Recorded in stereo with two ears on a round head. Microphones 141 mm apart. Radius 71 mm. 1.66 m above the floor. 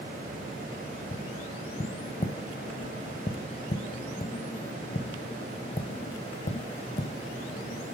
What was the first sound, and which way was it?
Tapping, 40° left (ahead or behind).